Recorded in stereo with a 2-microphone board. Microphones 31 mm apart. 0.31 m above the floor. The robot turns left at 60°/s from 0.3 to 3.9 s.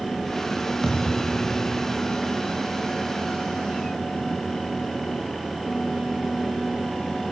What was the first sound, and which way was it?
A thud, 5° left.